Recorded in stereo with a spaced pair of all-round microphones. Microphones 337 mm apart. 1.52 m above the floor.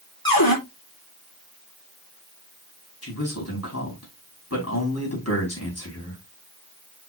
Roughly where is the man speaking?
Left.